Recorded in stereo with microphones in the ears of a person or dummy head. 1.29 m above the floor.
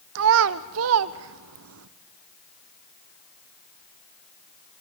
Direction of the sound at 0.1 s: 65° right (ahead or behind).